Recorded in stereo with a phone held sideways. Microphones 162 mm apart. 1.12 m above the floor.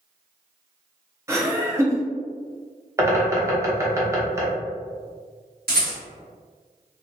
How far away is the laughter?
About 0.8 m.